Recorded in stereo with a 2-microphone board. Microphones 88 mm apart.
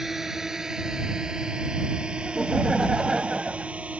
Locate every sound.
0.0 s a drone: 5° right (ahead or behind); by 4.0 s 15° right (ahead or behind)
2.2 s laughter: 5° right (ahead or behind)